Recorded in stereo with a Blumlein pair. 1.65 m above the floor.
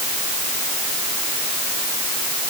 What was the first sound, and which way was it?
Only background noise.